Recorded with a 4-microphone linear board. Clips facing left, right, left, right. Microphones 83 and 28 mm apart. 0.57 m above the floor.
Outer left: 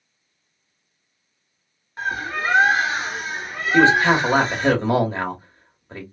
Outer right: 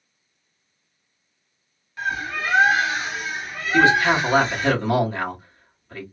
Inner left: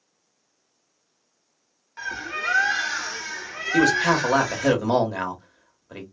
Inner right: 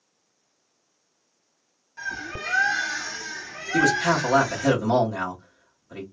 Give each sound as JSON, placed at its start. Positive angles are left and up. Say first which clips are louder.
{"t": 2.0, "sound": "a bird", "louder": "outer left 1 dB, inner left 3 dB", "side_deg": 35, "distance_m": 1.3}
{"t": 3.7, "sound": "a man speaking", "louder": "outer left 2 dB, inner left 1 dB", "side_deg": 30, "distance_m": 1.1}